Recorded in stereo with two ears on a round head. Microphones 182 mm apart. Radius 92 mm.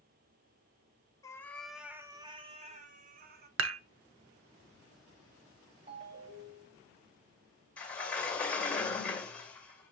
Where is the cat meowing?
15° left (ahead or behind), 0.8 m; by 3.5 s 50° right (ahead or behind), 1.2 m.